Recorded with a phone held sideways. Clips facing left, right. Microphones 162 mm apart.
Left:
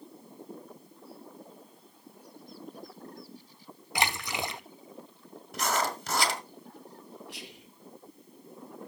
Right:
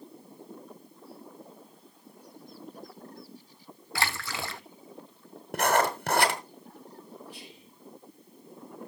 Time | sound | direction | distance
4.0 | a splash | 20° left (ahead or behind) | 0.6 m
5.5 | writing | 60° right (ahead or behind) | 1.6 m
7.3 | whispering | 85° left | 2.0 m